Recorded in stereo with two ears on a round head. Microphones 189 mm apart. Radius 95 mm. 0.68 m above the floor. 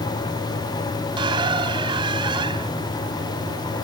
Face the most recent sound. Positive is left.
turn(degrees=-25)  # may be behind; listen again after turning